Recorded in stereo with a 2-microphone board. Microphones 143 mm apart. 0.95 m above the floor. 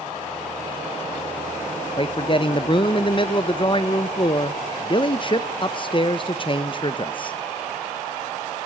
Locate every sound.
2.0 s a man speaking: 35° left (ahead or behind), 0.7 m